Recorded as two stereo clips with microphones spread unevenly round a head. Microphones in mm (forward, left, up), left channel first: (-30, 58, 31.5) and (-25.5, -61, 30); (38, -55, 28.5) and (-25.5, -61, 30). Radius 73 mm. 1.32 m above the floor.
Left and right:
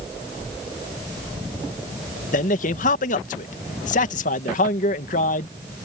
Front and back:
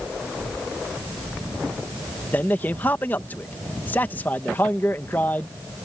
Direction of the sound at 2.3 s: 75° left.